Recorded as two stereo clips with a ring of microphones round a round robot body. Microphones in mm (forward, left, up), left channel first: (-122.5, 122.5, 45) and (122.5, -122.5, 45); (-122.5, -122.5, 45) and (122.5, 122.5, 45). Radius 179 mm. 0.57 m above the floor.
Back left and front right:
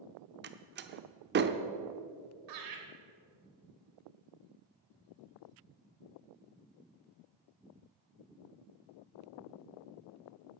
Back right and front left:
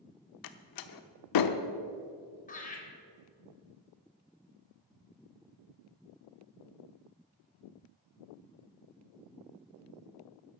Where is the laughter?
70° right, 3.5 m.